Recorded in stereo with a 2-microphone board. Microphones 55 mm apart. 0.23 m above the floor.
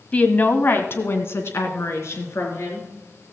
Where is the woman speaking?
25° left (ahead or behind), 1.1 m; by 2.9 s 60° left (ahead or behind), 3.5 m.